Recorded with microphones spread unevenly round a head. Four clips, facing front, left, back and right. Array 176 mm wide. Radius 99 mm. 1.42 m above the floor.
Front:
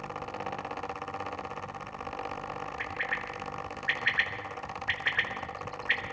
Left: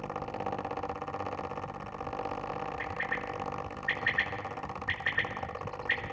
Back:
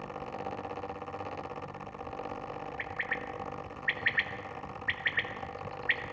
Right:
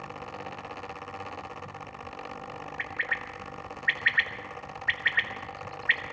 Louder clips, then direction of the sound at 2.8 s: Right 1 dB, front 2 dB; 150° right.